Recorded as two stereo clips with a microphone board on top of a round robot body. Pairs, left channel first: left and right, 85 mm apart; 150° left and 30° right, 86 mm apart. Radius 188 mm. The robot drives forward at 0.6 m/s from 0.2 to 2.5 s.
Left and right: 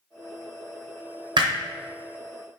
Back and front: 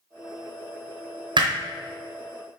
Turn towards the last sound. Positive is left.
turn(degrees=-145)